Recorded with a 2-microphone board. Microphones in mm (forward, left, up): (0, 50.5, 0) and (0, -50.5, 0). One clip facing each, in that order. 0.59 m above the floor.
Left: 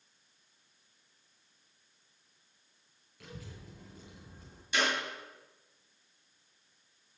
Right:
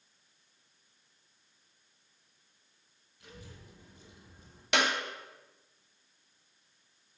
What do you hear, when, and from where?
3.2 s a child speaking: 85° left, 6 m
4.7 s a clap: 70° right (ahead or behind), 2.5 m